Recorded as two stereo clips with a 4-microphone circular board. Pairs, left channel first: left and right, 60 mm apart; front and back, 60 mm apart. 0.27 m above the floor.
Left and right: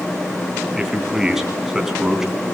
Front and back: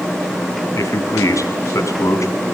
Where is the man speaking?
10° right, 2.5 m.